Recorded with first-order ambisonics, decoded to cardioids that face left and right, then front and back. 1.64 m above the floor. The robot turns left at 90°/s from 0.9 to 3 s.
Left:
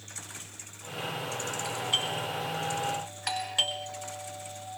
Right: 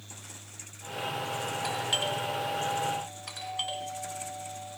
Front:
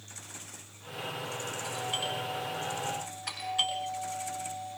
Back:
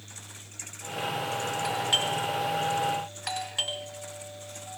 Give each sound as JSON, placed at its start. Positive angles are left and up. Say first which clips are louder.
{"t": 1.6, "sound": "a doorbell", "louder": "even, back 7 dB", "azimuth_deg": -120, "distance_m": 9.5}